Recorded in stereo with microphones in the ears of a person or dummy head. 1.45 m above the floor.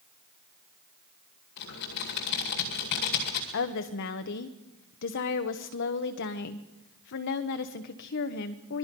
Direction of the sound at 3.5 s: 60° left (ahead or behind).